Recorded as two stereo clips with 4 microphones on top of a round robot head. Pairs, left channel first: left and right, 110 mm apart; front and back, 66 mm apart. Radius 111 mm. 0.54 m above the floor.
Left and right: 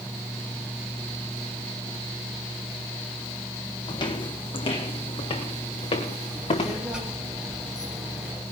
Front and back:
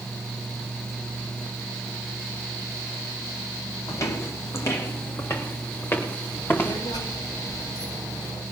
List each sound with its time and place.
3.9 s footsteps: 40° left, 1.6 m; by 6.8 s 55° left, 4.5 m
6.2 s a child speaking: 5° right, 9.5 m